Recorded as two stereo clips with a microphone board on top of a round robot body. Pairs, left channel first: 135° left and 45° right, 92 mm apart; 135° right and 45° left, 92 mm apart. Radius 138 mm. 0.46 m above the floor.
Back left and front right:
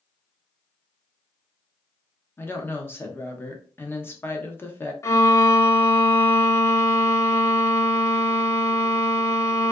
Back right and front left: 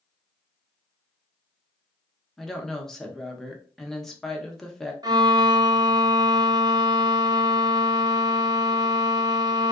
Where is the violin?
80° left, 0.6 m.